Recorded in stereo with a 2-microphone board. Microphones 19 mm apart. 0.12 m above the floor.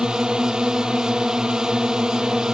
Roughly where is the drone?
Right.